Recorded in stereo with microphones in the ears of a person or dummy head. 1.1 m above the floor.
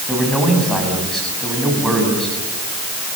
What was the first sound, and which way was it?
A man speaking, centre (ahead or behind).